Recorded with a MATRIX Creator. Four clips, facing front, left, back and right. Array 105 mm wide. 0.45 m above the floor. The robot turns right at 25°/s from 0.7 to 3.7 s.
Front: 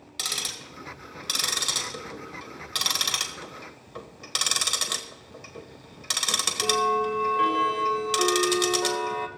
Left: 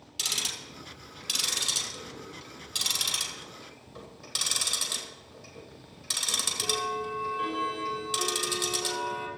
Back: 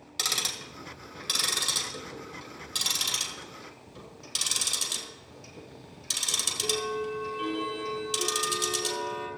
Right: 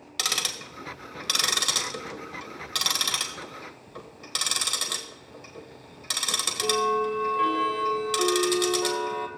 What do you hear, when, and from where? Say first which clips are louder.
0.2 s ticking: right 7 dB, back 2 dB; 100° right, 1.4 m; by 9.3 s 25° right, 1.4 m